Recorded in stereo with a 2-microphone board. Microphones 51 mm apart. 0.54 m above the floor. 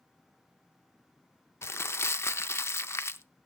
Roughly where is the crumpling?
Left.